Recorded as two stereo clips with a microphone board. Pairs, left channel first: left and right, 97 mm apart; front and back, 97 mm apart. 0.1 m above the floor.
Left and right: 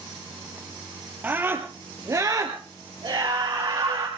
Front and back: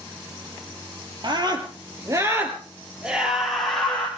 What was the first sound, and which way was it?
A scream, 155° right.